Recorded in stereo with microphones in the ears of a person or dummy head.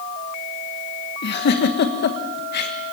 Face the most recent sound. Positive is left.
turn(degrees=55)  # may be behind; listen again after turning